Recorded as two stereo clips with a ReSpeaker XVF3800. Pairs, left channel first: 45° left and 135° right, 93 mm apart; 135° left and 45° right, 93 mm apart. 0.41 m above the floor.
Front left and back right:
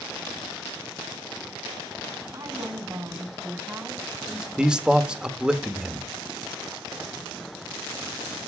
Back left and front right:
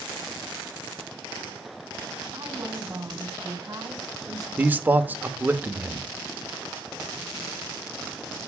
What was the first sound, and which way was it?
A woman speaking, 95° right.